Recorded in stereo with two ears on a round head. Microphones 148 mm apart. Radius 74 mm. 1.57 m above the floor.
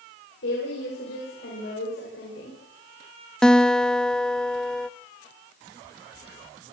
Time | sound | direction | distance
0.4 | a woman speaking | 80° left | 7.5 m
3.4 | a guitar | 5° left (ahead or behind) | 0.5 m